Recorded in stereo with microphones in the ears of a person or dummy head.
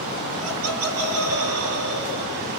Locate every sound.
0.4 s laughter: 75° right (ahead or behind), 1.6 m; by 2.5 s 70° right (ahead or behind), 4.5 m